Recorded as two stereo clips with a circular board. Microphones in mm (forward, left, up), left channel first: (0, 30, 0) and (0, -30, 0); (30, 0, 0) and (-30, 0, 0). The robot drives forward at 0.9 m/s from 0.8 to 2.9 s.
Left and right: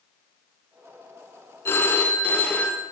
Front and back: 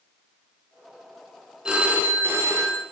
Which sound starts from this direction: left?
A phone ringing, at 1.6 s.